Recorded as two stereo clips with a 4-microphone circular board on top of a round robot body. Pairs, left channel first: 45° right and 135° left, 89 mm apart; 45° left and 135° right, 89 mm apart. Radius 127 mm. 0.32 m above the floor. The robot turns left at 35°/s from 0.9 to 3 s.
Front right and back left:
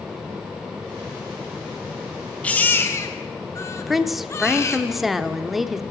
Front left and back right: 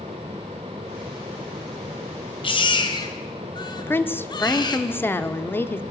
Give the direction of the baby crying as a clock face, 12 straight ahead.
11 o'clock.